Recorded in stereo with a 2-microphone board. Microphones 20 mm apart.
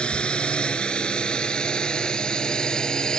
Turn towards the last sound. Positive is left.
turn(degrees=40)  # may be behind; listen again after turning